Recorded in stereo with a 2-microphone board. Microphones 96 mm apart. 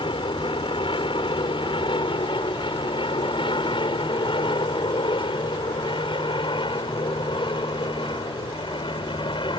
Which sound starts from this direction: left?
An aircraft, at 0.0 s.